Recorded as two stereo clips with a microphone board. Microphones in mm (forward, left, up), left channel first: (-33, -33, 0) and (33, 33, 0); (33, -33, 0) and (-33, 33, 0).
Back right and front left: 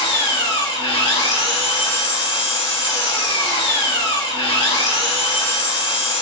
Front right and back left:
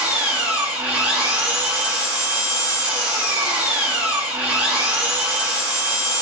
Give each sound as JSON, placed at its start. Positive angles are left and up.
{"t": 0.0, "sound": "an engine running", "azimuth_deg": -150, "distance_m": 2.0}